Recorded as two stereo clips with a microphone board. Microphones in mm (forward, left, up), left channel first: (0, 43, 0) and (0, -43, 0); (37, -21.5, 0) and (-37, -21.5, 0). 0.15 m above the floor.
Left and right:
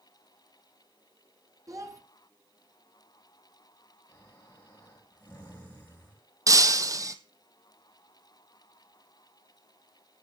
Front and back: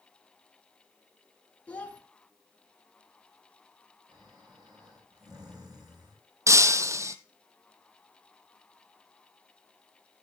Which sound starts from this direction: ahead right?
A child speaking, at 1.7 s.